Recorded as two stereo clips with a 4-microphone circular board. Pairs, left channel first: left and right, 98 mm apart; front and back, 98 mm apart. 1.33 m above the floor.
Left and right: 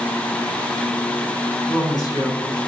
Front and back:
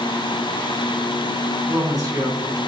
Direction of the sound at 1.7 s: 130° left.